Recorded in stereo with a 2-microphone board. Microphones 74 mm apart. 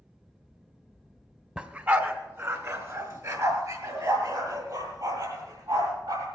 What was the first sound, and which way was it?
A dog barking, 15° right (ahead or behind).